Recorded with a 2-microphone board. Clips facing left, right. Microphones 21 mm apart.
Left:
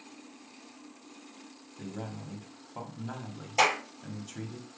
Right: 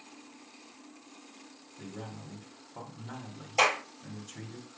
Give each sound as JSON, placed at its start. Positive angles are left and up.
{"t": 1.8, "sound": "a man speaking", "side_deg": 20, "distance_m": 1.5}
{"t": 3.6, "sound": "a clap", "side_deg": 0, "distance_m": 4.5}